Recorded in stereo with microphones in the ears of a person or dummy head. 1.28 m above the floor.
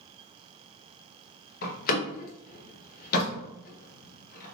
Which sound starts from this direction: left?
A door slam, at 1.6 s.